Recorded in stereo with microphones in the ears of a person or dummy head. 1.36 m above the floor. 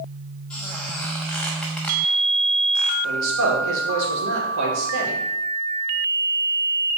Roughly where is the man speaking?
Right.